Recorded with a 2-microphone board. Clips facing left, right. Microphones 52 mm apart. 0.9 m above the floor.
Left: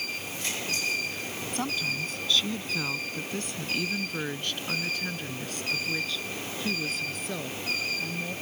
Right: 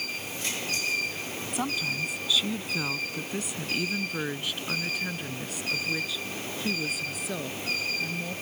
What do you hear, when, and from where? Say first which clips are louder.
1.5 s a woman speaking: right 1 dB; 5° right (ahead or behind)